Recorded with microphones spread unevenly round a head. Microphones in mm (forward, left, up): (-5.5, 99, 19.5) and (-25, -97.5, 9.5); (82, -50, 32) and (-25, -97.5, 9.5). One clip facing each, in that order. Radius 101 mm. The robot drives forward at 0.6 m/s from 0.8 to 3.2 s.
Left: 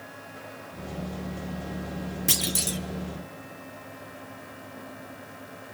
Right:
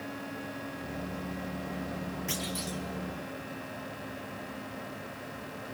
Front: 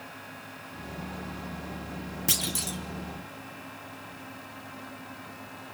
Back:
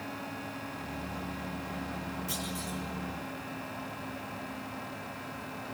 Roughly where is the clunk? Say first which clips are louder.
Left 4 dB, front 2 dB; ahead left.